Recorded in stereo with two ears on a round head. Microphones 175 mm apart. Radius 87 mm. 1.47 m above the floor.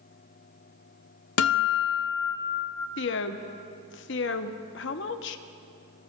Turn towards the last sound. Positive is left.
turn(degrees=65)  # may be behind; listen again after turning